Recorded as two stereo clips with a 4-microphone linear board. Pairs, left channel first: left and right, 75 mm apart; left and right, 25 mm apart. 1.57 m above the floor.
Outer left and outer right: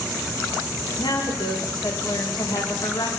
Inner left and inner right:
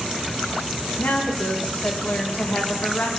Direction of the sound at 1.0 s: 70° left (ahead or behind).